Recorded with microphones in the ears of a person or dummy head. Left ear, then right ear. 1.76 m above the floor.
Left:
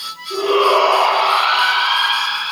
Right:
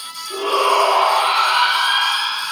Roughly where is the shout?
Right.